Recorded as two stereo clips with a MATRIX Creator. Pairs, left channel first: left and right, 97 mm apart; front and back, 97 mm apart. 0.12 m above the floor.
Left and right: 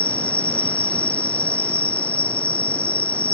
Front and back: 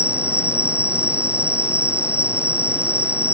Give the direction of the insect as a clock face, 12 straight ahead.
8 o'clock.